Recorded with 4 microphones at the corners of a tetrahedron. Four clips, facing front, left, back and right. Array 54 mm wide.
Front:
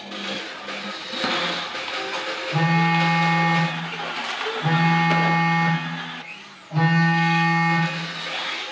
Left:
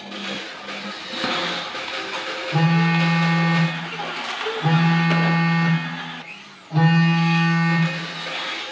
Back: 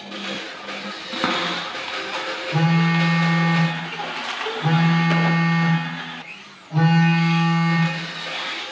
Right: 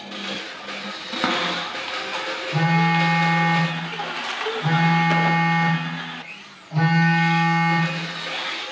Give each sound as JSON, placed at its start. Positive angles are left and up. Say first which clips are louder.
{"t": 1.1, "sound": "a cupboard door", "louder": "right 2 dB, back 2 dB", "azimuth_deg": -145, "distance_m": 0.9}
{"t": 2.5, "sound": "a phone buzzing", "louder": "even, even", "azimuth_deg": 115, "distance_m": 2.5}